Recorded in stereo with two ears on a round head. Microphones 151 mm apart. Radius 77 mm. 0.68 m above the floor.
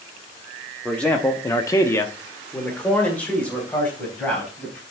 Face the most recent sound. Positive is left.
turn(degrees=5)  # may be behind; listen again after turning